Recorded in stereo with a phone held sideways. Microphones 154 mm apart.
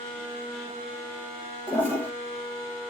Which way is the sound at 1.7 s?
15° left (ahead or behind).